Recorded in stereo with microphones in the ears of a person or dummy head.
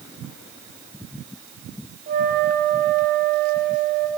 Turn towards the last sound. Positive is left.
turn(degrees=-35)  # may be behind; listen again after turning